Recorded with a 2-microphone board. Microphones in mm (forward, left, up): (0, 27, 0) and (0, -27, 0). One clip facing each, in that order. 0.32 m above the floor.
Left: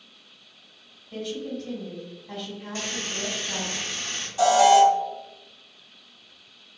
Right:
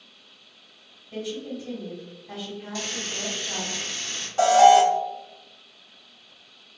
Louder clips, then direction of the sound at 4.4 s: Right 2 dB; 35° right (ahead or behind).